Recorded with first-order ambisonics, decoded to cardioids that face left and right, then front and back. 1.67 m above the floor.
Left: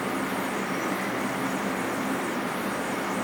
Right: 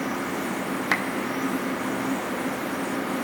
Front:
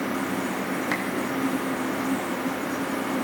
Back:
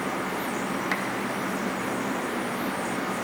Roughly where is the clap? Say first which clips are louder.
Right 6 dB, front 1 dB; right.